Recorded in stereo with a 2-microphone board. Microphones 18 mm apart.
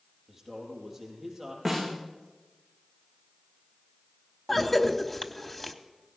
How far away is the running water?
No running water in this recording.